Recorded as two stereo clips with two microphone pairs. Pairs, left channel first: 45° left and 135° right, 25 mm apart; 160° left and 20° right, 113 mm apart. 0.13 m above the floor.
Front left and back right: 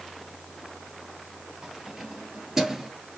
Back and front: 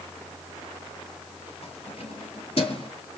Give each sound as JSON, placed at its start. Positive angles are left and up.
{"t": 1.6, "sound": "keys jangling", "azimuth_deg": 160, "distance_m": 2.0}